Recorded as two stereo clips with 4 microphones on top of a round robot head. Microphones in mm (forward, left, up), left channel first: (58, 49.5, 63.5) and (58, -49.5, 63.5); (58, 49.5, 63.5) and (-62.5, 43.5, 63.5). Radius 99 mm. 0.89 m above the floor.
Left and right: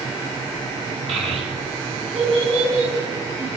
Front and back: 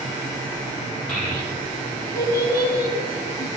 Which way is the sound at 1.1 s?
85° right.